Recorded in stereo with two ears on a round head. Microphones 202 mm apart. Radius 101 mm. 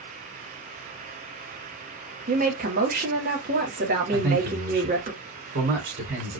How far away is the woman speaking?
About 2 m.